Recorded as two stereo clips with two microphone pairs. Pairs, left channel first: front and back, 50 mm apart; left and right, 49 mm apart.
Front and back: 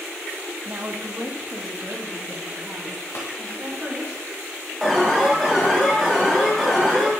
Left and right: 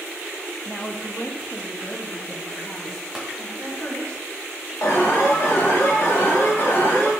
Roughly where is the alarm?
Left.